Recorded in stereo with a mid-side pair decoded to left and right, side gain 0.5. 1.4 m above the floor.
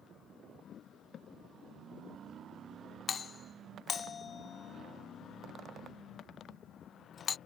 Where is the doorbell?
40° left.